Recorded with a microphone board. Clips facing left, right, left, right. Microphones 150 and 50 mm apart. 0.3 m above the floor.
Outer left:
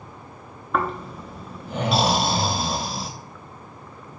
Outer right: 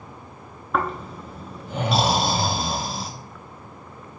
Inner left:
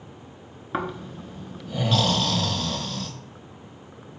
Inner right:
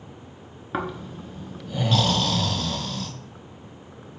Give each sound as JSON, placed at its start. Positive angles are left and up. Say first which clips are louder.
{"t": 0.7, "sound": "snoring", "louder": "even, even", "side_deg": 0, "distance_m": 0.6}